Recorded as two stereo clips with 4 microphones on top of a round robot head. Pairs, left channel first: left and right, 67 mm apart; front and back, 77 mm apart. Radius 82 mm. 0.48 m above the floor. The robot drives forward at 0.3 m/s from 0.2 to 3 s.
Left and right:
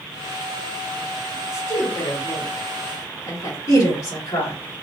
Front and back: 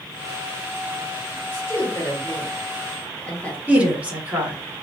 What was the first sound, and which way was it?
A woman speaking, 55° left.